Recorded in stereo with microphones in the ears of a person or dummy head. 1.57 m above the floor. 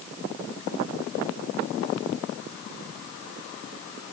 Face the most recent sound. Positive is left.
No sound to turn to.